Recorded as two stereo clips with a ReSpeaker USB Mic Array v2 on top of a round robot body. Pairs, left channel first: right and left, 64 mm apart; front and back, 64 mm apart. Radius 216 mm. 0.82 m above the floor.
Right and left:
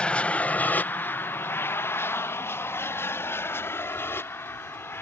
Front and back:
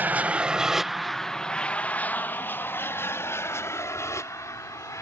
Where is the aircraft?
150° right; by 5.0 s 35° right.